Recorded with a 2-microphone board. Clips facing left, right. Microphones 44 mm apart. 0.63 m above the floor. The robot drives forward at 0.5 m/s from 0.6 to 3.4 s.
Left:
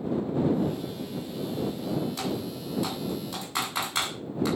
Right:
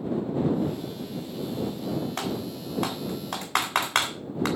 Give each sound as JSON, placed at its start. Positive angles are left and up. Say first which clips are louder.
{"t": 2.2, "sound": "typing on a keyboard", "louder": "right 1 dB", "side_deg": -55, "distance_m": 3.5}